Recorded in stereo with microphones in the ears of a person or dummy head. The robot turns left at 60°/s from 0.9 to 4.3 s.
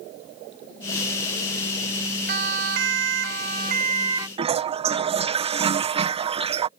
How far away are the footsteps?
No footsteps in this recording.